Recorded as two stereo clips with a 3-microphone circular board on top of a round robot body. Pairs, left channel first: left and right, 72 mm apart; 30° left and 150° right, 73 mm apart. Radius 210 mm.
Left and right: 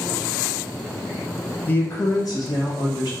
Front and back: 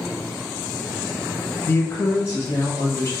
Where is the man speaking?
50° left, 0.7 m; by 3.1 s 90° left, 1.4 m.